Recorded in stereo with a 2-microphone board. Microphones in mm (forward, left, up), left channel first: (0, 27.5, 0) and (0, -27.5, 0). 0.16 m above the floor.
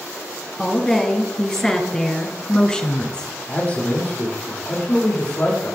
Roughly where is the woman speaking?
Centre.